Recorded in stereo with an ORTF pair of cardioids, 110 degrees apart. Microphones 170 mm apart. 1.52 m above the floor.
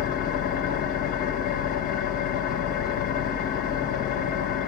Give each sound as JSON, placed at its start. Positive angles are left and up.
{"t": 0.0, "sound": "an engine running", "azimuth_deg": 65, "distance_m": 1.3}